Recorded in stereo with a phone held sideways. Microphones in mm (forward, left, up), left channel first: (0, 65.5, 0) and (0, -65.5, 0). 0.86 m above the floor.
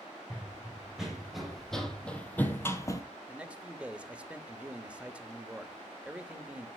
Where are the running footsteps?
10° right (ahead or behind), 2.5 m; by 3.0 s 25° left (ahead or behind), 1.0 m.